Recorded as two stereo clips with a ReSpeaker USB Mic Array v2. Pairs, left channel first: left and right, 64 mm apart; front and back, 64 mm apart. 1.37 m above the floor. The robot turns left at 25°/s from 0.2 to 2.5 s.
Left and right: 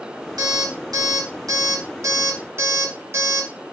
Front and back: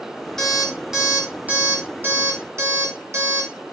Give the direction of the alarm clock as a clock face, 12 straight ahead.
3 o'clock.